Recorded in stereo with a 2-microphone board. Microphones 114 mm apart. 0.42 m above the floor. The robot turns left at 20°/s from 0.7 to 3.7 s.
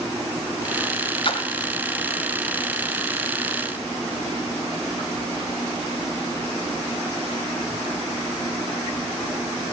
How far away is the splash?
About 1.0 m.